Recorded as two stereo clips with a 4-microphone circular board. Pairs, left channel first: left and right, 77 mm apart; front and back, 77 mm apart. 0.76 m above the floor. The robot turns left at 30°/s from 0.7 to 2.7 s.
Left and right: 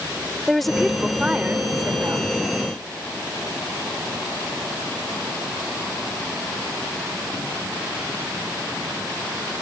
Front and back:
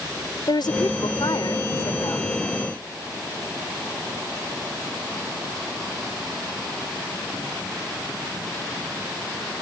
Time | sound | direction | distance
0.5 | a woman speaking | straight ahead | ?